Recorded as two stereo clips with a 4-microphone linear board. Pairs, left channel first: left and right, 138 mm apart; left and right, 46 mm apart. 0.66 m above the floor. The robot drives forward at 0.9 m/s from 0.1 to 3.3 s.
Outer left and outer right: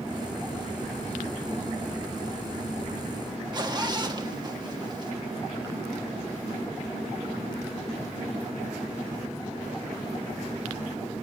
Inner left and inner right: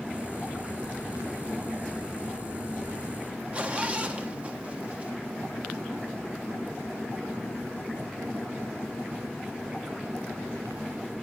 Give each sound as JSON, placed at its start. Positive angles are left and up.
{"t": 3.5, "sound": "a zipper", "side_deg": -30, "distance_m": 1.2}